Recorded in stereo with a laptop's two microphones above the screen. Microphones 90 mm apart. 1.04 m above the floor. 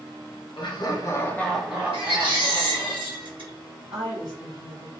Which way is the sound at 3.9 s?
70° right (ahead or behind).